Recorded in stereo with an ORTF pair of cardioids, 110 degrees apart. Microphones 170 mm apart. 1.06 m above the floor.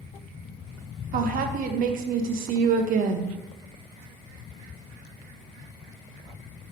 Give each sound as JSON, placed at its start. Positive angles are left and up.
{"t": 1.1, "sound": "a woman speaking", "azimuth_deg": -60, "distance_m": 0.6}